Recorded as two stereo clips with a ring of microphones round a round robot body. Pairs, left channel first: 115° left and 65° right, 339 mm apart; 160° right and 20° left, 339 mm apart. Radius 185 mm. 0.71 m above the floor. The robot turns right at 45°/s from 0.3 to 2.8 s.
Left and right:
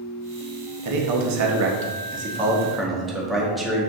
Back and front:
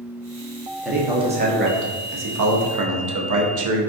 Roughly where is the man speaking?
Ahead right.